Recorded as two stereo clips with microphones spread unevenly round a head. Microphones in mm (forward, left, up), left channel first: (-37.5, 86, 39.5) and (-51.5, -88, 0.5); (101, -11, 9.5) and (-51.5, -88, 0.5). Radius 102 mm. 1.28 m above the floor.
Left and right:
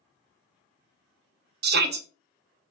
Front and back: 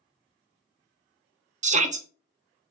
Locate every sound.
1.6 s a shout: 105° right, 0.7 m